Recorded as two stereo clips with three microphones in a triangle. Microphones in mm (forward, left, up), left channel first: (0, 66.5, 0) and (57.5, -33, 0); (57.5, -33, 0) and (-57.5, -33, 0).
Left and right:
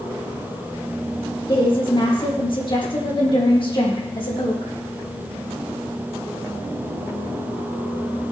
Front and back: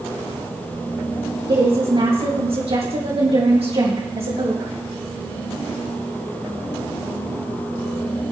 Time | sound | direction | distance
1.5 | a woman speaking | 155° left | 4 m